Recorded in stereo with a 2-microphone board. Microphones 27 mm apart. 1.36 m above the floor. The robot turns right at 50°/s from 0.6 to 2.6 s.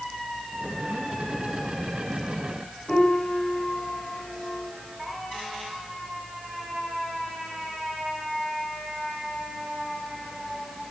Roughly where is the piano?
Left.